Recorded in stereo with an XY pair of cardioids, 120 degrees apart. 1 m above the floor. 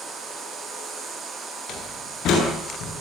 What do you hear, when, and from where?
1.7 s a door slam: 60° left, 9.5 m